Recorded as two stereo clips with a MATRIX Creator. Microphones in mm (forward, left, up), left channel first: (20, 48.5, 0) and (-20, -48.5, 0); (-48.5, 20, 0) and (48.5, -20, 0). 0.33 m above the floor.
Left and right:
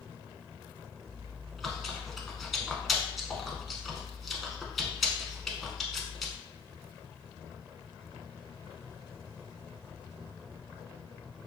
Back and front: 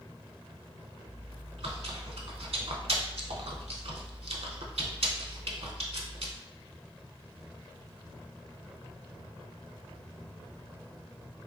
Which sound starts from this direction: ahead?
Chewing, at 1.1 s.